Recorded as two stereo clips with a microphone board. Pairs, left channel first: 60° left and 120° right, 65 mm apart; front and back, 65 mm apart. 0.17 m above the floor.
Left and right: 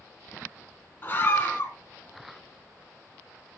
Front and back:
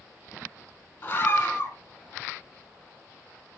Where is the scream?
30° left, 1.4 m.